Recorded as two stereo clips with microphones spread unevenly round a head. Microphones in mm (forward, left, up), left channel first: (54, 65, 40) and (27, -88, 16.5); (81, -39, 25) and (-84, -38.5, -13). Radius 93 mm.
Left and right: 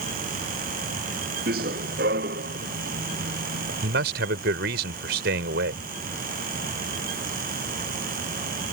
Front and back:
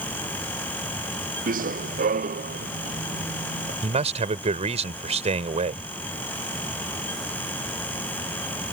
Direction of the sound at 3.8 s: 130° right.